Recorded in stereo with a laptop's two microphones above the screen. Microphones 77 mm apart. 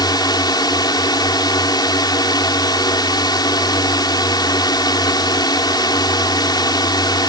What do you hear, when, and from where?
0.0 s a drone: 60° left (ahead or behind)